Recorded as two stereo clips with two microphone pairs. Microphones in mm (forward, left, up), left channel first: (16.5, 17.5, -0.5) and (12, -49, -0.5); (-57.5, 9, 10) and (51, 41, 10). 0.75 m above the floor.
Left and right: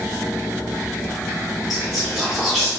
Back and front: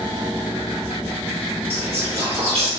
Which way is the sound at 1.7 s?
5° right.